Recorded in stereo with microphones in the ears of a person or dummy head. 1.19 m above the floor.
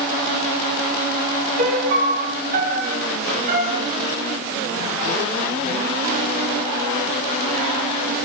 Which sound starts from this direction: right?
A piano, at 1.6 s.